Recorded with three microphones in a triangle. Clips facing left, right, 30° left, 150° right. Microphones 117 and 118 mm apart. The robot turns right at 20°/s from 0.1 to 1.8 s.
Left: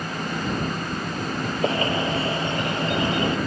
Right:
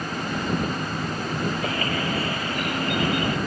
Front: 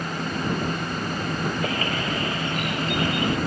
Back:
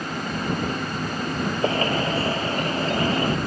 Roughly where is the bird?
Behind left.